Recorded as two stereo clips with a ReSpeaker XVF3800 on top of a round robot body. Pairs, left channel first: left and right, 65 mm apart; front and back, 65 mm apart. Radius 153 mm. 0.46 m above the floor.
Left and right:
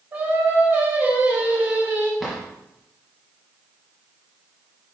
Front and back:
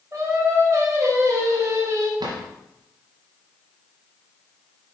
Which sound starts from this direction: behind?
A drawer, at 2.2 s.